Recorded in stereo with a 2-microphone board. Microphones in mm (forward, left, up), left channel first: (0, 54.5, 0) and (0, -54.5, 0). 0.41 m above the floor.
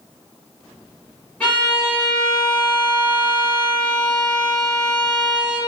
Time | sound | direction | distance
1.4 | a violin | 10° left (ahead or behind) | 1.8 m